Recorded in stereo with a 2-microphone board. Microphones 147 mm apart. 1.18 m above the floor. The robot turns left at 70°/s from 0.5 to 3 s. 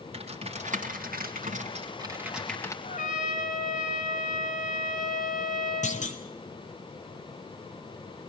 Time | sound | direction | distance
0.1 | typing on a keyboard | 45° right (ahead or behind) | 3.5 m
2.8 | a trumpet | 55° left (ahead or behind) | 5.5 m
5.8 | a clunk | 55° left (ahead or behind) | 3 m